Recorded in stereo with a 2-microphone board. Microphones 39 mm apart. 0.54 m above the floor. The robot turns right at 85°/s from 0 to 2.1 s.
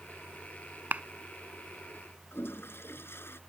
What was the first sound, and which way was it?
A clap, 45° right (ahead or behind).